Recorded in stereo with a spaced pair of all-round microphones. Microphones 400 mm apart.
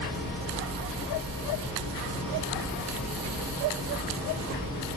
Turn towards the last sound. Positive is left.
turn(degrees=55)  # may be behind; listen again after turning